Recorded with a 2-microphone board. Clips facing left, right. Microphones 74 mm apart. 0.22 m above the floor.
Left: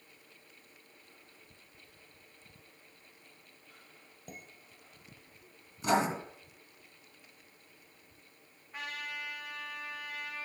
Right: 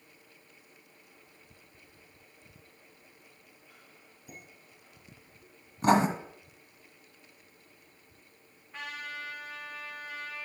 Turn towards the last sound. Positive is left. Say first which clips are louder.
# right 1 dB
turn(degrees=10)  # may be behind; listen again after turning